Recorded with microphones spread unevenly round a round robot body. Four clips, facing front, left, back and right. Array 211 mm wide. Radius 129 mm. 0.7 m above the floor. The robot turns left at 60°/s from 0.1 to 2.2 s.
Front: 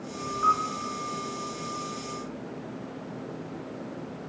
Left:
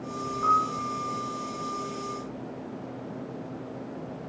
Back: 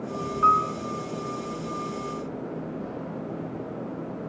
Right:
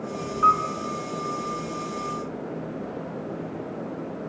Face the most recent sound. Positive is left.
turn(degrees=135)